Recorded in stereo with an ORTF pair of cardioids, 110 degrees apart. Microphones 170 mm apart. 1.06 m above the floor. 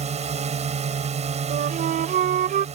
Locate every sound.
0.0 s a drone: 40° right
1.5 s a flute: 55° right